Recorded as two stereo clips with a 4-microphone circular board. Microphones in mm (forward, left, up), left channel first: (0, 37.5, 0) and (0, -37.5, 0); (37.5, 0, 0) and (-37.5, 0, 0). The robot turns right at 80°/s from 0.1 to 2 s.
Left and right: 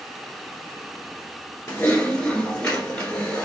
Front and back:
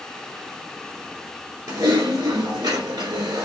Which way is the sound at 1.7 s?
140° left.